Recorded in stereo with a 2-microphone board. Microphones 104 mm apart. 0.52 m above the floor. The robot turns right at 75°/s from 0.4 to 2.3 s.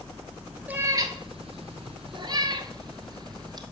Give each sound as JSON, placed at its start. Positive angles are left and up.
{"t": 0.7, "sound": "a cat meowing", "side_deg": -15, "distance_m": 1.2}